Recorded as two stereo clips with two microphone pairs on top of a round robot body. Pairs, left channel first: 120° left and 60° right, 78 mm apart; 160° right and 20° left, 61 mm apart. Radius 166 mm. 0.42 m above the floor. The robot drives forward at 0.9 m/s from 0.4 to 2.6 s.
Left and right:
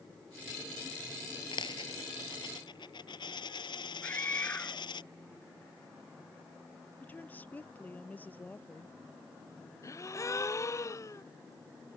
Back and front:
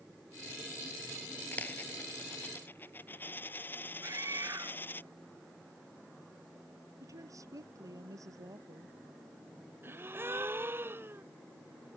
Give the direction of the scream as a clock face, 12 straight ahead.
10 o'clock.